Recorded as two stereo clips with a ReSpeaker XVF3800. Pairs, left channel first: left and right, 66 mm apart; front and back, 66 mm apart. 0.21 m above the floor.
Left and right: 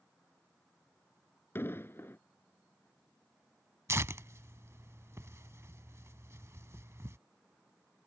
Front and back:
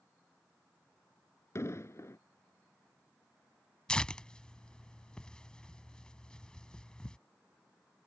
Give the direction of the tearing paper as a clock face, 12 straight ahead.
2 o'clock.